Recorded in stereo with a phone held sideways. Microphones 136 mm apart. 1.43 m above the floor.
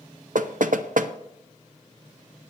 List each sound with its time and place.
0.3 s knocking: 70° right (ahead or behind), 0.7 m